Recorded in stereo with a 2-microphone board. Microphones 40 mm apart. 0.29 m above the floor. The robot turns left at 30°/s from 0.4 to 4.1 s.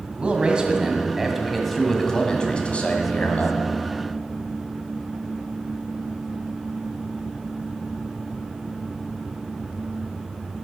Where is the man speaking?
145° right, 1.8 m; by 3.6 s 120° left, 1.8 m.